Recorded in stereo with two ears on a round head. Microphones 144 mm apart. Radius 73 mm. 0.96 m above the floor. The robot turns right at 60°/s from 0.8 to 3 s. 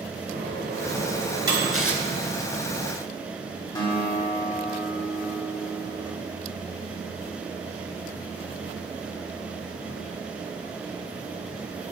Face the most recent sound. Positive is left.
turn(degrees=25)  # may be behind; listen again after turning